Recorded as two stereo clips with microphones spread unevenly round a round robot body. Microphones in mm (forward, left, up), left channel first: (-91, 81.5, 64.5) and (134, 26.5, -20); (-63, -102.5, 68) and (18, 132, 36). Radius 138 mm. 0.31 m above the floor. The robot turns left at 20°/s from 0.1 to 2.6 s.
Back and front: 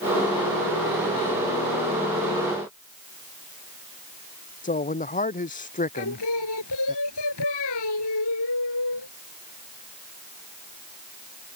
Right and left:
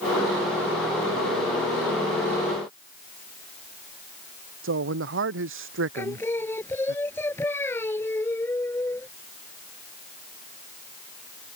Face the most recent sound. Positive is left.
turn(degrees=170)